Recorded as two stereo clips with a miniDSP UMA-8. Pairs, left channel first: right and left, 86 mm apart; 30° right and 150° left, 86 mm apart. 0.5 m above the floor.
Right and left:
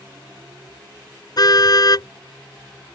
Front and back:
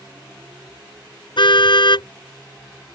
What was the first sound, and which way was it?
A car horn, 50° right.